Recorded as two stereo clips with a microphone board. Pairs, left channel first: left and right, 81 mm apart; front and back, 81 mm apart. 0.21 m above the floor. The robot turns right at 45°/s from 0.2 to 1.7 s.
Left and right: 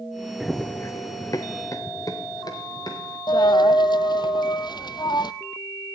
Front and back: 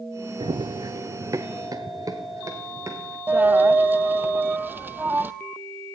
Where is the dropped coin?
115° left, 0.6 m.